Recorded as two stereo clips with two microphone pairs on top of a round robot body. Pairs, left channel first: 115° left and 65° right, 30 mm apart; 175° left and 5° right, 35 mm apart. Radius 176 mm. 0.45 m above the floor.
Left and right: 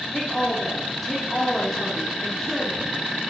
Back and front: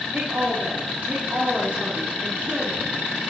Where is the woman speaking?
35° left, 2.5 m.